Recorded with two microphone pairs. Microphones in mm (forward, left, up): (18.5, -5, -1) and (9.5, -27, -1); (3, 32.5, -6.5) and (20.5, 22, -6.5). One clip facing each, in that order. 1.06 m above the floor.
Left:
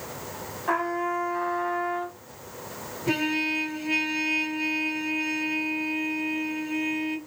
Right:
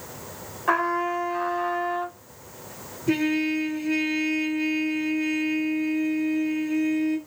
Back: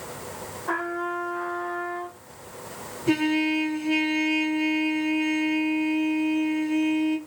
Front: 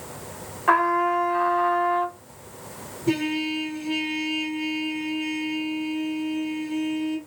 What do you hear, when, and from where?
0.7 s a trumpet: 40° right, 0.9 m
3.1 s a trumpet: 80° left, 1.8 m